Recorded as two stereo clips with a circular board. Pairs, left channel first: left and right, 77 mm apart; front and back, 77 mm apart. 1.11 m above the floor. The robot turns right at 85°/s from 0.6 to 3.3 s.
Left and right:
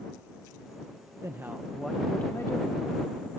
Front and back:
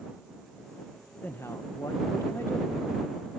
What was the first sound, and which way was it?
A man speaking, 55° right.